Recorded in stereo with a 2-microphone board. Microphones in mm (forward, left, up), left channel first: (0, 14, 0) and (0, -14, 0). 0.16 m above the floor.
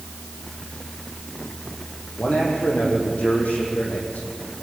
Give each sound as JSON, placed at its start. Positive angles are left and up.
{"t": 2.2, "sound": "a man speaking", "side_deg": 65, "distance_m": 8.0}